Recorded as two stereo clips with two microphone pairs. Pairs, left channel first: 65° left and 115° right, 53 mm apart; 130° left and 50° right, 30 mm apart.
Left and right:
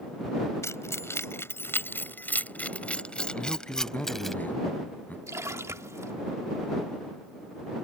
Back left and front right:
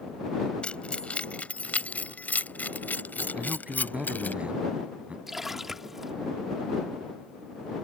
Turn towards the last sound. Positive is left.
turn(degrees=-125)